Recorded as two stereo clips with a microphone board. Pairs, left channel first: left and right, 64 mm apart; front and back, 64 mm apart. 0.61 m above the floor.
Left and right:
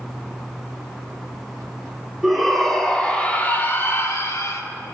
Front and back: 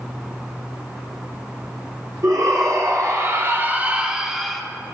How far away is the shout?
About 1.5 m.